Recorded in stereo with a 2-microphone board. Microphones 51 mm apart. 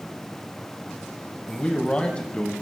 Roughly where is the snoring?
I don't hear snoring.